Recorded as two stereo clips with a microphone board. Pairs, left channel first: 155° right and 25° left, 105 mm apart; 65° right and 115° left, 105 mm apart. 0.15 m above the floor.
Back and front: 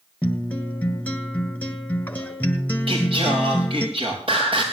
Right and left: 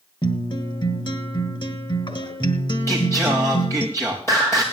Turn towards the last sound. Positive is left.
turn(degrees=-5)